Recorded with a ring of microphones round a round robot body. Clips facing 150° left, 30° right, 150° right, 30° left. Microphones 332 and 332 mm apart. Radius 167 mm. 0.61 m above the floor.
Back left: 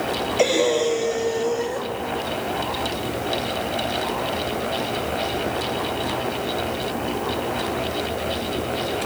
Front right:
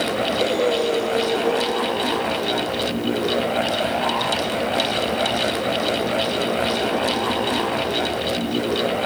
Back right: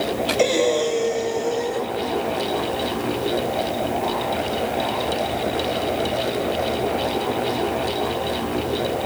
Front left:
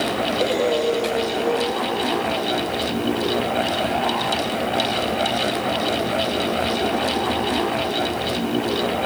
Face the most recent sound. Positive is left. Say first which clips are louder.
# back left 2 dB, back right 2 dB
turn(degrees=180)